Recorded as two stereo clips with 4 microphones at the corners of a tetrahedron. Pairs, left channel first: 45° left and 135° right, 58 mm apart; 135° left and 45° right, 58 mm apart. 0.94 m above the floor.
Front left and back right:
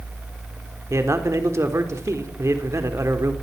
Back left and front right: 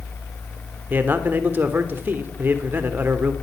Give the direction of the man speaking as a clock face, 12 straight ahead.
3 o'clock.